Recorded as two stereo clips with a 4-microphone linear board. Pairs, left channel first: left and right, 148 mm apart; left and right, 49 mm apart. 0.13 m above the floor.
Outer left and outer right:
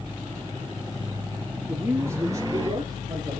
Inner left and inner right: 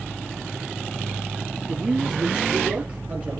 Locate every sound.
1.7 s a man speaking: 15° right (ahead or behind), 1.4 m; by 3.4 s 30° right (ahead or behind), 2 m